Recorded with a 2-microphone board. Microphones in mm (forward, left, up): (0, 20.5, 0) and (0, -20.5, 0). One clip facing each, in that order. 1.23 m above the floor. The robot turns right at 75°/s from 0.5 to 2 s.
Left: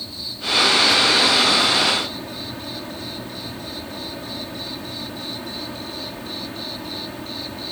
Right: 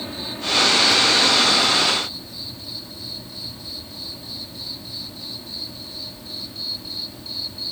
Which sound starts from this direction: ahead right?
An insect, at 0.0 s.